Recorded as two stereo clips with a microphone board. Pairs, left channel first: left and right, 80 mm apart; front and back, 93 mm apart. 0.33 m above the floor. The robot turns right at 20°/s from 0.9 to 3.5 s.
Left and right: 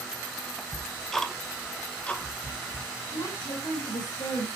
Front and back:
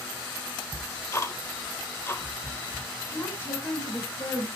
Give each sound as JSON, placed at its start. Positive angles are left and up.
{"t": 0.7, "sound": "ticking", "azimuth_deg": 10, "distance_m": 1.3}
{"t": 3.1, "sound": "a woman speaking", "azimuth_deg": 65, "distance_m": 7.0}